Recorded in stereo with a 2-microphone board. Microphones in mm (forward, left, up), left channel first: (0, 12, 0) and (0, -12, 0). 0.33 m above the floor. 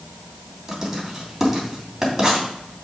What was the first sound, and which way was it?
Writing, 10° right (ahead or behind).